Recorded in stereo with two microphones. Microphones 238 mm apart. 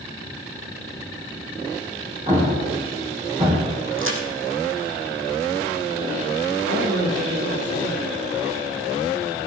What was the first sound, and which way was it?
An explosion, 25° right (ahead or behind).